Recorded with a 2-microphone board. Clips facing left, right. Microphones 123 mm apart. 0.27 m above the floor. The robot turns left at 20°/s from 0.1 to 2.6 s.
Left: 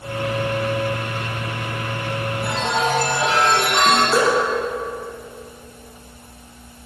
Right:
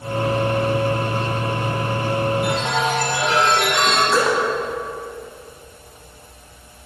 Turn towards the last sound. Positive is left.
turn(degrees=30)  # may be behind; listen again after turning